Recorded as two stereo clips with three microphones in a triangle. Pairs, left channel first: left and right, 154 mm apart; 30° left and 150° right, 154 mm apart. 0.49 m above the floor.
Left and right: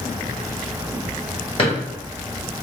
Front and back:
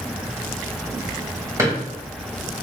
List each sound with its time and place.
1.6 s a drawer: 140° left, 1.7 m